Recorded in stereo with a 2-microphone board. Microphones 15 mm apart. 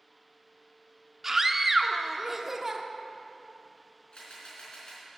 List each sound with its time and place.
1.2 s a scream: 25° right (ahead or behind), 0.8 m
4.1 s a camera shutter: 80° left, 4.5 m